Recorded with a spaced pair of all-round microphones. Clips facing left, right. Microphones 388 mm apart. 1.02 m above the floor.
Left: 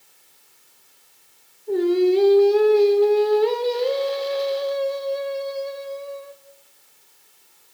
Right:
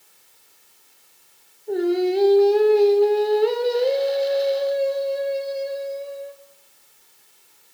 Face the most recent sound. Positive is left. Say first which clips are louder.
# left 3 dB
turn(degrees=15)  # may be behind; listen again after turning